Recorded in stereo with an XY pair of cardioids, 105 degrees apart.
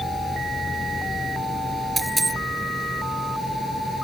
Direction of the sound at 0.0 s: 15° left.